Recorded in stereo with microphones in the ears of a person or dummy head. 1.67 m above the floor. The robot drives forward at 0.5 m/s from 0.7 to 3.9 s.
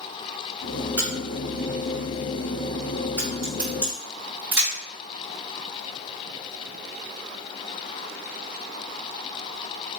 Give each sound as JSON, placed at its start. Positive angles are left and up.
{"t": 1.0, "sound": "a crack", "side_deg": -25, "distance_m": 1.9}